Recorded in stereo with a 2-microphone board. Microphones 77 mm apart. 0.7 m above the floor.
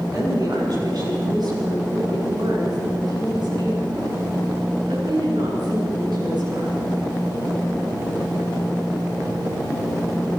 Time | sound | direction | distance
0.1 | a woman speaking | 55° right (ahead or behind) | 8 m